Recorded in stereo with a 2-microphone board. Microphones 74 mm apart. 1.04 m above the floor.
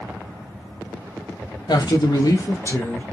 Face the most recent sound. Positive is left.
turn(degrees=25)  # may be behind; listen again after turning